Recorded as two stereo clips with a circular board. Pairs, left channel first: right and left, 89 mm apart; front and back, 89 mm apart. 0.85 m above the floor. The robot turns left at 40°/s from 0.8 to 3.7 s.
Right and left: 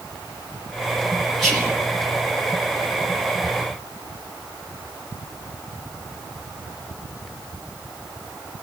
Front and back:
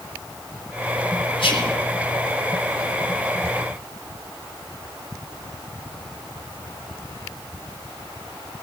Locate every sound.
1.4 s whispering: straight ahead, 2 m; by 1.8 s 15° right, 2 m